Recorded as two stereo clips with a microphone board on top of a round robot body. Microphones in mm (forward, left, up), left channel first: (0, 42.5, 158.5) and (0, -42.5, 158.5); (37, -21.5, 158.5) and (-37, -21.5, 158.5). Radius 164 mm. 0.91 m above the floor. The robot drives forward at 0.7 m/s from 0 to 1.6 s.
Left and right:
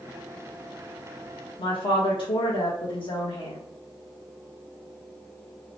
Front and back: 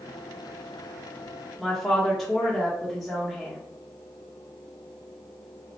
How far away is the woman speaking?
About 0.8 m.